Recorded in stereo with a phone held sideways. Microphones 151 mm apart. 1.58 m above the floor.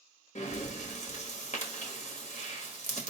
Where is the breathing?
50° left (ahead or behind), 0.9 m.